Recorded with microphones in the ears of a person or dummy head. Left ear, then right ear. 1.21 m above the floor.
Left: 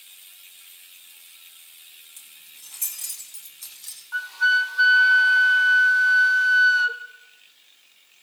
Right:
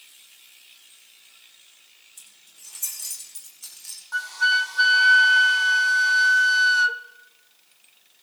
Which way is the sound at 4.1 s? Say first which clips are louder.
Left 1 dB; 5° right (ahead or behind).